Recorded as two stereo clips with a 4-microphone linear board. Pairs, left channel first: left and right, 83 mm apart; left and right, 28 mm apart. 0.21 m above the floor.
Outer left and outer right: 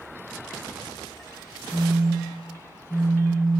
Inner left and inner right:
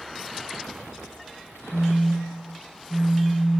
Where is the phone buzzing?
45° left (ahead or behind), 2 m.